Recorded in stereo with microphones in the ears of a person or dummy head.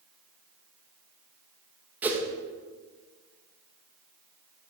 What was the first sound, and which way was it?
A whoosh, 10° right (ahead or behind).